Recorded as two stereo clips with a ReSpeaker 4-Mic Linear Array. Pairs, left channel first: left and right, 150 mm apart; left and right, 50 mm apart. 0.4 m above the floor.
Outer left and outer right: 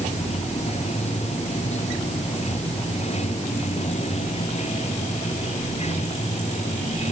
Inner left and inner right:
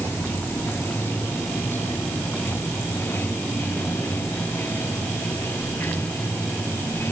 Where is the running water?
45° left (ahead or behind).